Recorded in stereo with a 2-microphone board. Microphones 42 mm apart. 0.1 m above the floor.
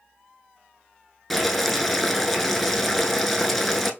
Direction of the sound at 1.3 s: Centre (ahead or behind).